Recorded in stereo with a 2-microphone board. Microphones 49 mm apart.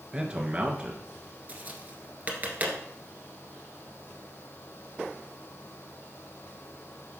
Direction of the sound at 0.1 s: 20° right (ahead or behind).